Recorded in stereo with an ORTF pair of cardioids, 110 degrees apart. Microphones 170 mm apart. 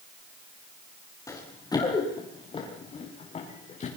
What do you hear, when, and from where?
1.3 s running footsteps: 20° left, 7.5 m; by 3.9 s 45° left, 9.5 m